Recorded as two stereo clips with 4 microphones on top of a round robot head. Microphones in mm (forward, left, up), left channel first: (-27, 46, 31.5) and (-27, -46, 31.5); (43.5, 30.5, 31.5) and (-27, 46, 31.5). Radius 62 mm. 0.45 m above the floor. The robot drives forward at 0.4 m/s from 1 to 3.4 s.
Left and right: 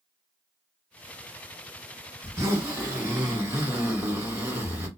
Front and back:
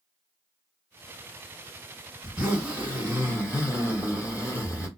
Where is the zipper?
130° right, 1.7 m; by 4.9 s 145° right, 1.9 m.